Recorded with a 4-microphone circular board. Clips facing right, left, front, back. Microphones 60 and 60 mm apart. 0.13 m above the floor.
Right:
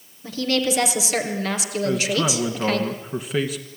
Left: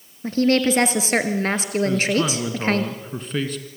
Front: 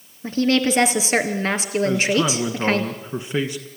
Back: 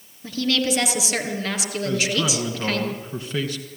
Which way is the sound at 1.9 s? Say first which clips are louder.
Even, front 3 dB; 20° right.